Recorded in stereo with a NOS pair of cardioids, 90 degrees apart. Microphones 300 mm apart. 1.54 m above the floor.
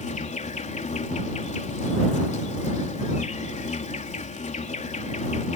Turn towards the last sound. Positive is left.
turn(degrees=25)